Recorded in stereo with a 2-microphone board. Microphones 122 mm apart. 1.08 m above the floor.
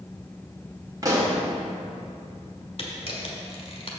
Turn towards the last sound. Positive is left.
turn(degrees=50)  # may be behind; listen again after turning